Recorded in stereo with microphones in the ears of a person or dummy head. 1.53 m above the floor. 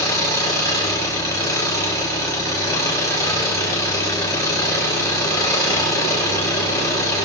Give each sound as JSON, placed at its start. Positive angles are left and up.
{"t": 0.0, "sound": "an engine running", "side_deg": 15, "distance_m": 7.5}